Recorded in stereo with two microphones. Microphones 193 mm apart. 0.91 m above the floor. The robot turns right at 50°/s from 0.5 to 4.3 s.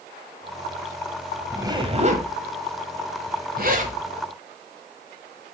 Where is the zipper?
15° right (ahead or behind), 1.3 m; by 4.0 s 40° right (ahead or behind), 1.3 m.